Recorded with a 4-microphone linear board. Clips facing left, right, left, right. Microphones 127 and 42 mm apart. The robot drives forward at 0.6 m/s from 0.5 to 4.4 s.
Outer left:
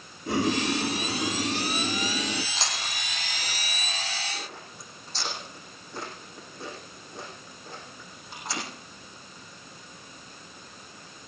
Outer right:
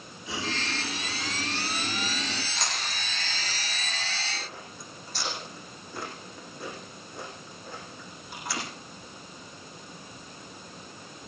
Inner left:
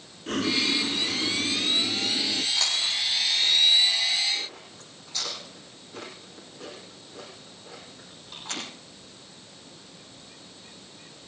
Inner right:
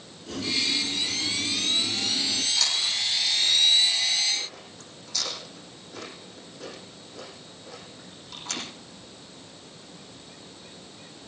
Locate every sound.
0.3 s boiling: 55° left (ahead or behind), 0.9 m; by 2.5 s 30° left (ahead or behind), 1.4 m
2.5 s chewing: 30° left (ahead or behind), 8.5 m; by 8.6 s 25° left (ahead or behind), 9.5 m